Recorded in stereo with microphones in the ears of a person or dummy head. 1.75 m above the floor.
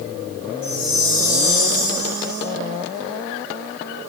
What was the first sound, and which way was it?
A chime, 50° right (ahead or behind).